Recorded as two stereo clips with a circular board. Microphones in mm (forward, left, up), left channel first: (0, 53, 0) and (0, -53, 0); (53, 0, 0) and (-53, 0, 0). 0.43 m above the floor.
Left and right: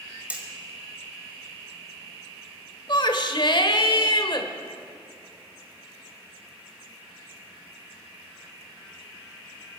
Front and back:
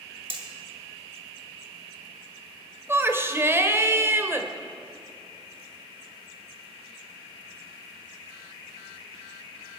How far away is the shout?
About 1.2 m.